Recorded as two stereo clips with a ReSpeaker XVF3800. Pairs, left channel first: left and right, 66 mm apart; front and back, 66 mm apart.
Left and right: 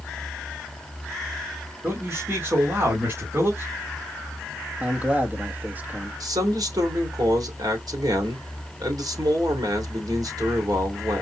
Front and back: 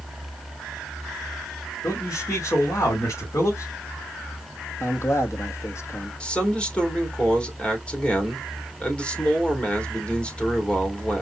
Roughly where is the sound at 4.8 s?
Ahead right.